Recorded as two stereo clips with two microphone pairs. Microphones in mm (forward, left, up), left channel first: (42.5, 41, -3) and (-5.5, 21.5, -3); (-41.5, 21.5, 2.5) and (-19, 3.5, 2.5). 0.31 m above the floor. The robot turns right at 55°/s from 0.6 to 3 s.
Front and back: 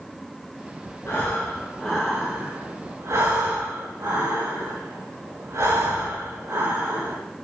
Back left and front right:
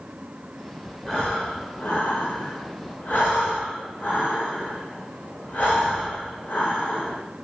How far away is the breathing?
About 5.5 m.